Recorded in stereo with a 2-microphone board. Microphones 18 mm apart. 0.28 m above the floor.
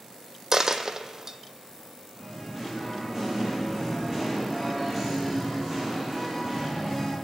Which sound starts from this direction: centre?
Singing, at 2.1 s.